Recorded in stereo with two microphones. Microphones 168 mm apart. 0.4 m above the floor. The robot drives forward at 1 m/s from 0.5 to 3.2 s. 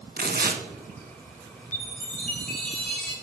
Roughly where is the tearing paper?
Right.